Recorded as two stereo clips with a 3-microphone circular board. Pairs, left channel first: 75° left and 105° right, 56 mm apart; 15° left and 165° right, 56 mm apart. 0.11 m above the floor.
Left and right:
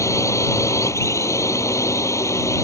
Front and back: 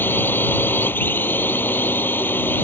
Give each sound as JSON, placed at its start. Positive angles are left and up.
{"t": 0.0, "sound": "a drone", "azimuth_deg": 65}